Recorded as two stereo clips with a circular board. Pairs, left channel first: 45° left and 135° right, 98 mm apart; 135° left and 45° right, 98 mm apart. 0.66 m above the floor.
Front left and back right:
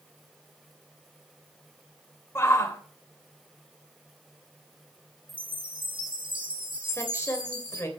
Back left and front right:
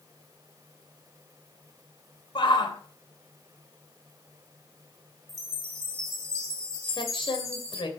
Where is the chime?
100° right, 2 m.